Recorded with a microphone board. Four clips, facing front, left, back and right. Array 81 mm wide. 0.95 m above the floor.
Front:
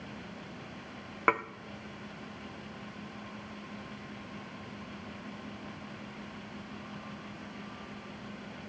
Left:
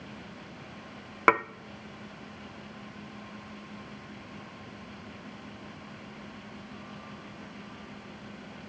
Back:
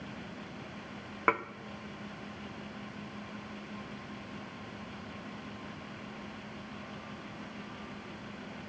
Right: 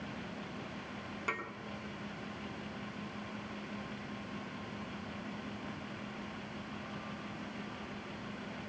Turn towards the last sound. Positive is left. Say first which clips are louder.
# left 17 dB, front 1 dB
turn(degrees=85)